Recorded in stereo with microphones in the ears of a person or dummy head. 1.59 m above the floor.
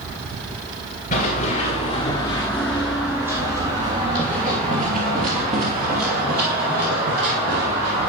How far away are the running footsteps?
About 1.9 m.